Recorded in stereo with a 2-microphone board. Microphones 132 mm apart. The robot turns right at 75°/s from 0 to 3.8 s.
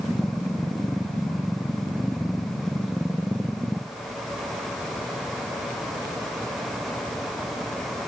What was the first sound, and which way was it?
Only background noise.